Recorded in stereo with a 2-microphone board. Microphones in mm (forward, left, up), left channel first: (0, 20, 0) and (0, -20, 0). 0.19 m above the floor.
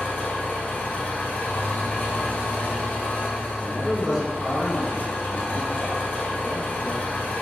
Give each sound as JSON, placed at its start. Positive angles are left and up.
{"t": 0.0, "sound": "an engine running", "side_deg": 60, "distance_m": 1.1}
{"t": 3.6, "sound": "a man speaking", "side_deg": 0, "distance_m": 1.5}